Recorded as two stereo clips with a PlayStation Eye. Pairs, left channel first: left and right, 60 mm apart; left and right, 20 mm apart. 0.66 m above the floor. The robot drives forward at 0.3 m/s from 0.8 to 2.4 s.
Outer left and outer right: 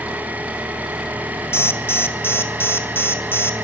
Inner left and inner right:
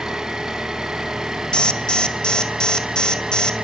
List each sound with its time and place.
0.0 s an engine running: 25° right (ahead or behind), 4.5 m; by 3.6 s 30° right (ahead or behind), 4 m
1.5 s an alarm: 40° left (ahead or behind), 1.9 m; by 3.5 s 35° left (ahead or behind), 2 m